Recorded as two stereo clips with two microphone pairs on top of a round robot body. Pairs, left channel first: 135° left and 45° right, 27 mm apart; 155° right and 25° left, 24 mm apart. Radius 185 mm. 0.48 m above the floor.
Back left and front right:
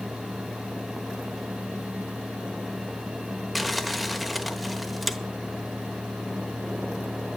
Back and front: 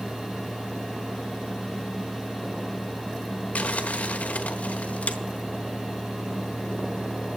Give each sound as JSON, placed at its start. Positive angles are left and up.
{"t": 3.5, "sound": "crumpling", "azimuth_deg": -130, "distance_m": 1.3}